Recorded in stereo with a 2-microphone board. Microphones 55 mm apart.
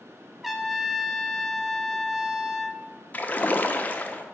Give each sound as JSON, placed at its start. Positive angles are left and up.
{"t": 0.4, "sound": "a trumpet", "side_deg": -5, "distance_m": 0.5}
{"t": 3.1, "sound": "a splash", "side_deg": 30, "distance_m": 0.5}